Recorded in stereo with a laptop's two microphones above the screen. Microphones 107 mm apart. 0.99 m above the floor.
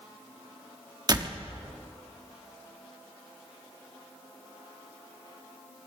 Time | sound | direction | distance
1.1 | a door slam | 40° right (ahead or behind) | 0.9 m